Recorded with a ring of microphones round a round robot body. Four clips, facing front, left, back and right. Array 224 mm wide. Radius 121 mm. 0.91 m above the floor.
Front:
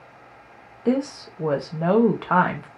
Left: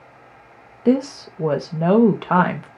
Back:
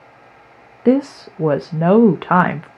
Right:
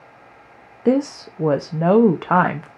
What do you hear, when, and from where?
0.8 s a woman speaking: 165° right, 0.5 m